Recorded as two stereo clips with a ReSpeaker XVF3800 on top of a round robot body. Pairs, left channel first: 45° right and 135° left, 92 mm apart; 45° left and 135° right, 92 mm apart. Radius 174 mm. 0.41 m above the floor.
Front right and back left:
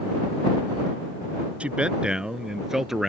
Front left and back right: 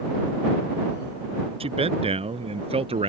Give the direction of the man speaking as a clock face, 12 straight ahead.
5 o'clock.